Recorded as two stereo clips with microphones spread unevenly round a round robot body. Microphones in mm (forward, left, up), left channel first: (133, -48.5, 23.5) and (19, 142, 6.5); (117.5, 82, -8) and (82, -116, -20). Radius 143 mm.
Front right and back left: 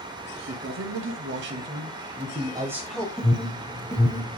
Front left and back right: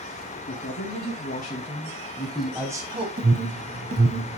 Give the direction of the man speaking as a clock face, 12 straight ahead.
8 o'clock.